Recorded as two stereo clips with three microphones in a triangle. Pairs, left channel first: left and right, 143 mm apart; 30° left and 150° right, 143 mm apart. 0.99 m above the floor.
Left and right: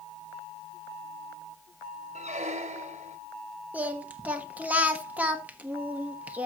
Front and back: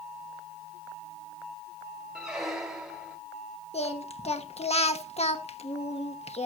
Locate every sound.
2.1 s a squeak: 65° right, 1.3 m
3.7 s singing: 10° right, 1.2 m